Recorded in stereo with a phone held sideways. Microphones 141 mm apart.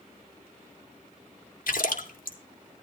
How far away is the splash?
About 2.5 m.